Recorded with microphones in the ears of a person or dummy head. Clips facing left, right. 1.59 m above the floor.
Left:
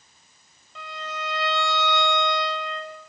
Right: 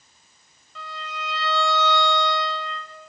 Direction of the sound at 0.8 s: 25° left (ahead or behind).